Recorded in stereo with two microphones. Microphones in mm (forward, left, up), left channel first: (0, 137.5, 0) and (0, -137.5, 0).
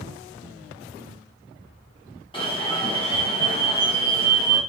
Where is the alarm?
20° left (ahead or behind), 0.8 m.